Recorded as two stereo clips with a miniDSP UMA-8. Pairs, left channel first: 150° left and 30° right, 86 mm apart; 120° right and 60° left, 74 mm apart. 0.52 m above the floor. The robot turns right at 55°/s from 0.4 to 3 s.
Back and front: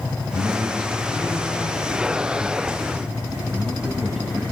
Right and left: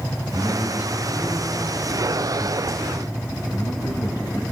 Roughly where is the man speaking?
Left.